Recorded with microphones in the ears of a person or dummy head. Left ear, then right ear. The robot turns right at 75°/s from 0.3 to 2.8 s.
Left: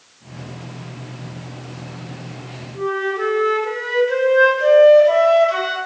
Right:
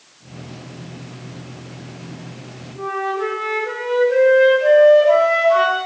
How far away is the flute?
About 3 m.